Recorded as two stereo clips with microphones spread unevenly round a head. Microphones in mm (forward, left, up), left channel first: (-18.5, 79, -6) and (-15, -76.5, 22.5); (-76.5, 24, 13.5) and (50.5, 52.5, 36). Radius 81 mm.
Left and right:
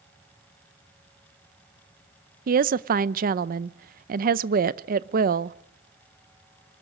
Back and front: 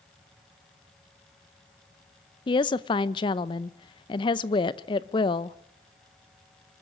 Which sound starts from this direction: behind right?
A woman speaking, at 2.5 s.